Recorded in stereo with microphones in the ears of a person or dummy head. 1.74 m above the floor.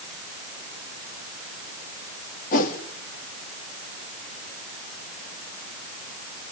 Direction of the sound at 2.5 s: 50° left (ahead or behind).